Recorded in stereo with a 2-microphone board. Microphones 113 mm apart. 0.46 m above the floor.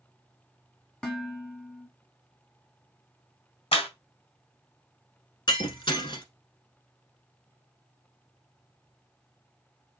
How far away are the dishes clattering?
About 1.8 m.